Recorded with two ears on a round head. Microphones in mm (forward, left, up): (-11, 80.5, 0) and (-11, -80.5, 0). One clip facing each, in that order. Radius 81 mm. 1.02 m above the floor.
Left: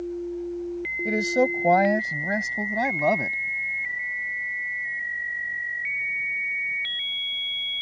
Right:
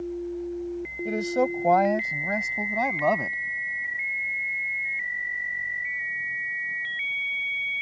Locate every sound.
1.1 s a man speaking: 15° left (ahead or behind); by 3.4 s 10° left (ahead or behind)